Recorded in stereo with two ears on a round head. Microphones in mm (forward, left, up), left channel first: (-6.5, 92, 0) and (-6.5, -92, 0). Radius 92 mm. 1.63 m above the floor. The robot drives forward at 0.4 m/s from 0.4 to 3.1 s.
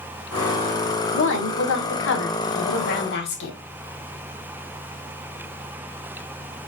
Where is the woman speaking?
65° left (ahead or behind), 1.3 m; by 3.5 s 55° left (ahead or behind), 1.5 m.